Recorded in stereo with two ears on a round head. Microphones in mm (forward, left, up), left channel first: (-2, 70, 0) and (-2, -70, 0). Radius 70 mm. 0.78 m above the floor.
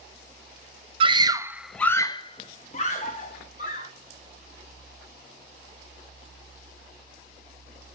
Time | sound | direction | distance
1.0 | a scream | 35° right (ahead or behind) | 0.8 m